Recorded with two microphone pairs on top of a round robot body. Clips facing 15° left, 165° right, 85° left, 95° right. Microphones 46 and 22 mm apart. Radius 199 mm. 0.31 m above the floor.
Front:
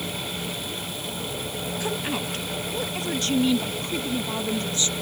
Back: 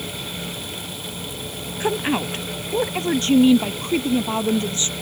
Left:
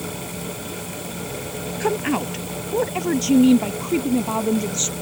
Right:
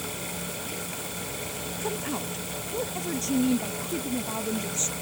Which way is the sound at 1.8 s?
135° left.